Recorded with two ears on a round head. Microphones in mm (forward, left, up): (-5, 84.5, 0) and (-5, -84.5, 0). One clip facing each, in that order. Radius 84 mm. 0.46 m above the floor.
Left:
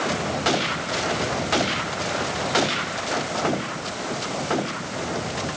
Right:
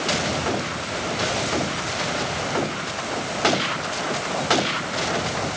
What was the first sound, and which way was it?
Only background noise.